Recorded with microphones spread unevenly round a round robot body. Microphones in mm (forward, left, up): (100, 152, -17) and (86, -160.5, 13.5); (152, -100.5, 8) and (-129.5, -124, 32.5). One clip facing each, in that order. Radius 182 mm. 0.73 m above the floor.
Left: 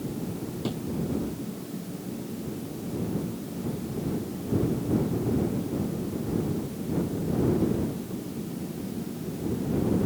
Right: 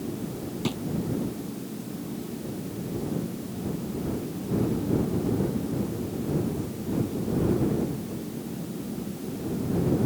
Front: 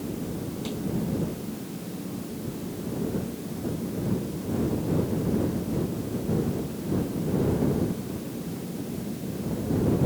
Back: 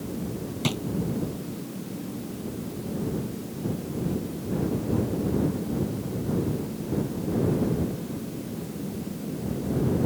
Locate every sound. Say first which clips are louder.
0.6 s a drawer: right 2 dB, back 7 dB; 170° right